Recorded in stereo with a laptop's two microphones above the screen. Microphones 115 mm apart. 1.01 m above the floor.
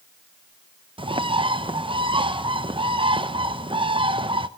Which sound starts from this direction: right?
A bird, at 1.0 s.